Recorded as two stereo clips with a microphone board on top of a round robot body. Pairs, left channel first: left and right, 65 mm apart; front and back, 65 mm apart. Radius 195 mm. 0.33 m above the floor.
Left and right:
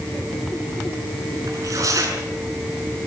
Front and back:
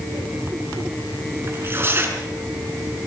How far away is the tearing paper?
About 6 m.